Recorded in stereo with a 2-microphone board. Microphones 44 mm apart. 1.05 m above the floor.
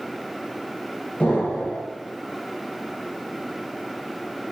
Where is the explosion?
20° left (ahead or behind), 0.8 m.